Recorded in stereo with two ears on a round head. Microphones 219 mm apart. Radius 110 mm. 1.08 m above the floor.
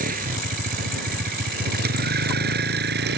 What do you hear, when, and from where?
0.0 s a vehicle: 40° right (ahead or behind); by 3.2 s 45° right (ahead or behind)